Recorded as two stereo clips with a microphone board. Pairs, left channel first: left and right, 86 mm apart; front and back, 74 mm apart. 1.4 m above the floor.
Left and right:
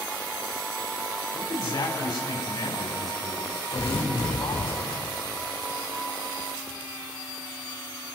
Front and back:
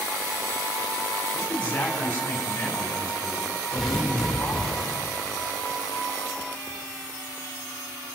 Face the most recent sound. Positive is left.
turn(degrees=80)